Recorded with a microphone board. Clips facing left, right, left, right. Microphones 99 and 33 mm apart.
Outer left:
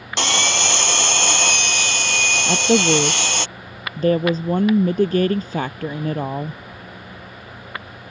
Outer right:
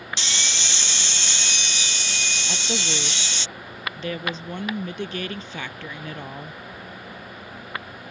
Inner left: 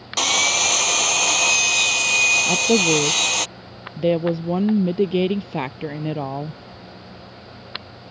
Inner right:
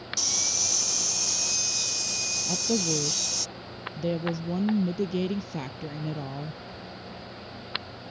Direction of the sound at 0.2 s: 75° left (ahead or behind).